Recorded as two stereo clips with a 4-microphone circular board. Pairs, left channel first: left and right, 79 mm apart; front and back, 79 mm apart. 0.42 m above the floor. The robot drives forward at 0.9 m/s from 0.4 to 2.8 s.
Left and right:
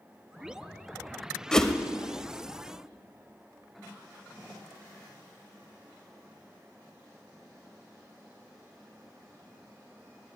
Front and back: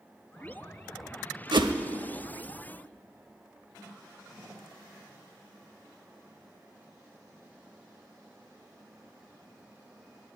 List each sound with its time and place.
1.5 s a whoosh: 170° left, 0.5 m; by 1.7 s 175° left, 0.7 m